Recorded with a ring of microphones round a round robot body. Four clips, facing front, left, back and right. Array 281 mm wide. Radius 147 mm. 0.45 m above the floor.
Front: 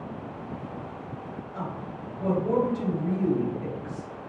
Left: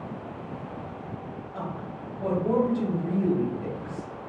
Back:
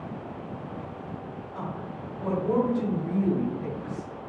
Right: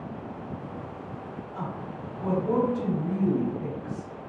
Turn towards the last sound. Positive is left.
turn(degrees=65)